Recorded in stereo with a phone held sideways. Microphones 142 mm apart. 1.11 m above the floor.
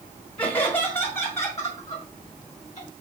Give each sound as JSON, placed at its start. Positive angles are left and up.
{"t": 0.4, "sound": "laughter", "side_deg": 35, "distance_m": 1.5}